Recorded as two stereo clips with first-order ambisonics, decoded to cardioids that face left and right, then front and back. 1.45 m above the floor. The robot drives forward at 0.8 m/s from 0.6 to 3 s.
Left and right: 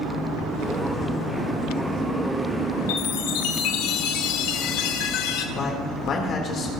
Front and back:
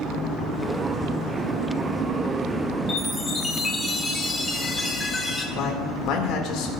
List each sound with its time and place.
2.9 s a chime: 75° left, 1.0 m; by 5.5 s 80° left, 1.0 m
5.5 s a man speaking: 30° left, 2.0 m